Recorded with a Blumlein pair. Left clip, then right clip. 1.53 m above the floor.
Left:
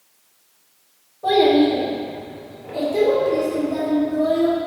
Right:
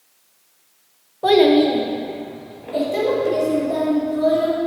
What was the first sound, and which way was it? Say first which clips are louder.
A child speaking: right 2 dB; 30° right.